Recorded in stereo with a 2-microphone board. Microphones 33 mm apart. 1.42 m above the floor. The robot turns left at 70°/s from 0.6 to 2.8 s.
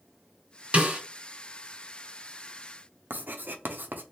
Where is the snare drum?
45° right (ahead or behind), 1.7 m; by 1.0 s 40° right (ahead or behind), 1.7 m.